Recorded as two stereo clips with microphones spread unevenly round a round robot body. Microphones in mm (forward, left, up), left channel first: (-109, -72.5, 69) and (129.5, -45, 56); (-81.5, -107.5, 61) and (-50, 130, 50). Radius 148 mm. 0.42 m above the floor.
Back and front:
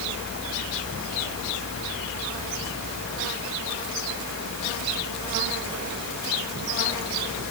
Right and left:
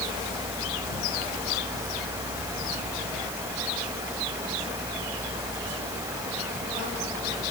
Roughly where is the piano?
No piano in this recording.